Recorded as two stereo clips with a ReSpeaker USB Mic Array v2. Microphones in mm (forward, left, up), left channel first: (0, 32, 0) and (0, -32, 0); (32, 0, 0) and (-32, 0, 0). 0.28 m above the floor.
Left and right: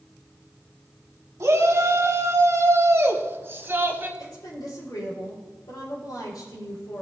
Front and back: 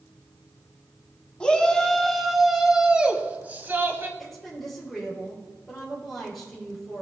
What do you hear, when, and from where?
1.4 s a shout: 70° right, 1.6 m; by 4.1 s 140° right, 1.5 m
4.2 s a woman speaking: 90° left, 5 m